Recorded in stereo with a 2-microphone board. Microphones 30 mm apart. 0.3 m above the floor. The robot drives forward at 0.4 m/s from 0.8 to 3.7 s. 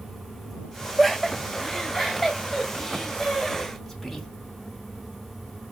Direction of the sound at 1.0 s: 10° left (ahead or behind).